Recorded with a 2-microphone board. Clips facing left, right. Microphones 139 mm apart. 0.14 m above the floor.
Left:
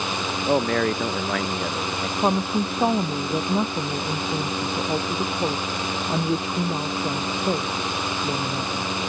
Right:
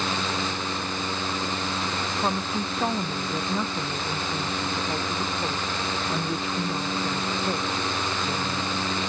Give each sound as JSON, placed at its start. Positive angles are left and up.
{"t": 0.5, "sound": "a man speaking", "side_deg": 85}
{"t": 2.2, "sound": "a woman speaking", "side_deg": 30}